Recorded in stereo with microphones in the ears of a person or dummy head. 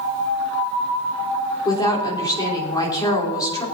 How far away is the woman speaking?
About 3.5 m.